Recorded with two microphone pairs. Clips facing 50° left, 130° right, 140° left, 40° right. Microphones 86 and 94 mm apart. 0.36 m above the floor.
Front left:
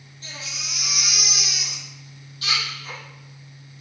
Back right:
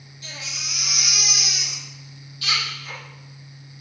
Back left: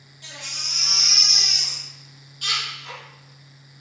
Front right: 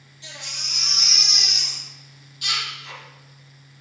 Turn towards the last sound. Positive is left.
turn(degrees=105)